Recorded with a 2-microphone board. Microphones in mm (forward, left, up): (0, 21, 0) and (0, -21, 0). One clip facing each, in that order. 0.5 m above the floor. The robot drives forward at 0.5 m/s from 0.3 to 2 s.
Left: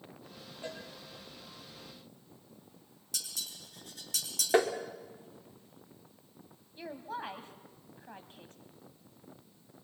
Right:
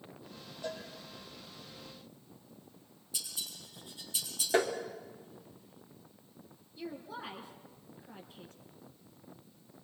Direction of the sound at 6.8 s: 50° left (ahead or behind).